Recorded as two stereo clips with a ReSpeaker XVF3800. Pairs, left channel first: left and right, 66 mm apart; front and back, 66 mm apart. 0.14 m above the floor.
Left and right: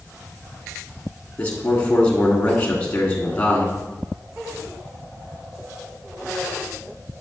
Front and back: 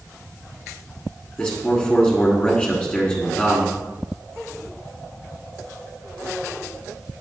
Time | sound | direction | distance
1.4 | a man speaking | 50° left | 1.2 m